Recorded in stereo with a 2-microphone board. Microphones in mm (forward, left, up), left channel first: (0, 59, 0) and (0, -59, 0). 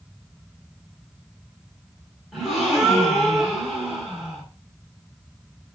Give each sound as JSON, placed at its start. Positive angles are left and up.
{"t": 2.3, "sound": "a gasp", "side_deg": 0, "distance_m": 1.4}